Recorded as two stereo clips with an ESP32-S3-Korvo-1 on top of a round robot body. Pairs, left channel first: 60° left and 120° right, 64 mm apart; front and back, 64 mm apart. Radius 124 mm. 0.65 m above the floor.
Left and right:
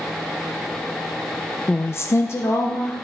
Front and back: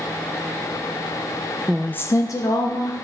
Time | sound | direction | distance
1.7 | a woman speaking | 115° left | 0.5 m